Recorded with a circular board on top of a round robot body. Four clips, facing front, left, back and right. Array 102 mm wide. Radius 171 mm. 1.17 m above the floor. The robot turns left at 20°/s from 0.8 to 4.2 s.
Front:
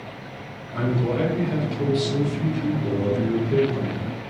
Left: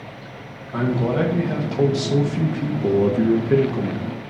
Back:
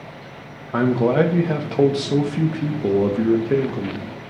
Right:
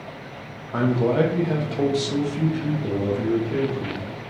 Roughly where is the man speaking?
Behind.